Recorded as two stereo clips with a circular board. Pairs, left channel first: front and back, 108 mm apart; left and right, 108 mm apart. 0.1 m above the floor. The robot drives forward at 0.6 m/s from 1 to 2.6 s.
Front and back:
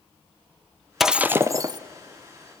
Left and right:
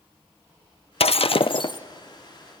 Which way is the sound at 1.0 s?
90° left.